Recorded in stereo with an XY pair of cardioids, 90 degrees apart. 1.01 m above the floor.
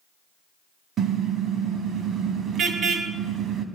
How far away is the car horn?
About 3 m.